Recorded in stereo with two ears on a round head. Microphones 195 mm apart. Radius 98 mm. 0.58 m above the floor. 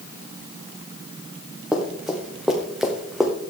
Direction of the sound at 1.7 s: 5° right (ahead or behind).